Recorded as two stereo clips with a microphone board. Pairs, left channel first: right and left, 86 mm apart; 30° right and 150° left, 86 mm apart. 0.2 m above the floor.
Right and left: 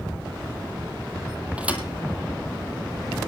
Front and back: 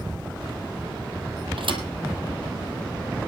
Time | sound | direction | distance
1.6 | a thud | 165° left | 2.5 m